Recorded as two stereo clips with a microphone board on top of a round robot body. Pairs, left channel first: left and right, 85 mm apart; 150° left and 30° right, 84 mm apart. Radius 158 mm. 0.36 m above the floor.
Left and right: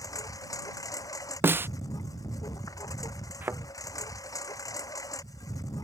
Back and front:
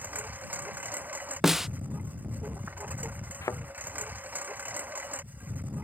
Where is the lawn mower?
40° left.